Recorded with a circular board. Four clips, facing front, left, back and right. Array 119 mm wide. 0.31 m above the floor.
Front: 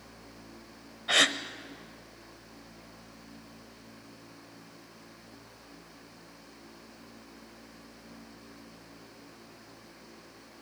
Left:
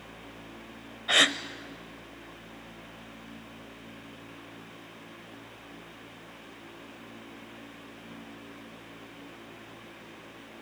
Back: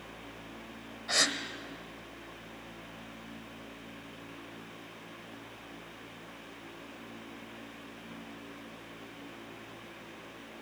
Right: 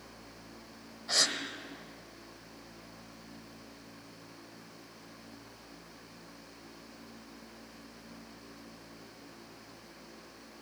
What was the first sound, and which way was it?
A gasp, 60° left.